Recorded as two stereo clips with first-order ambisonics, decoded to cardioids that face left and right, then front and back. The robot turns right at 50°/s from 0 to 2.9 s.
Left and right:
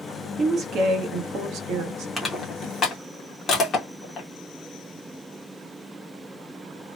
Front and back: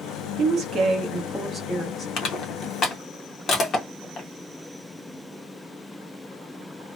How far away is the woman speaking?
About 1.0 m.